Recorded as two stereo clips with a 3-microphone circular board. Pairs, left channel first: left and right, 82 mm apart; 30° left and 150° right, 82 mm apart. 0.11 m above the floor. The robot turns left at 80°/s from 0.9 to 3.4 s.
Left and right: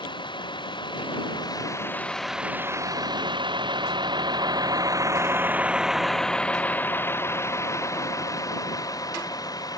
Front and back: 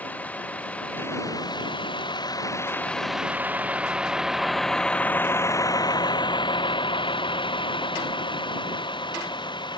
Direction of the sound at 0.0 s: 100° left.